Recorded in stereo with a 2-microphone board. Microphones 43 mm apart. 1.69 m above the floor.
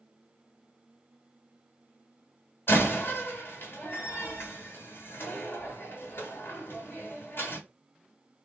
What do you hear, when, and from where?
2.7 s a door slam: 60° left (ahead or behind), 1.9 m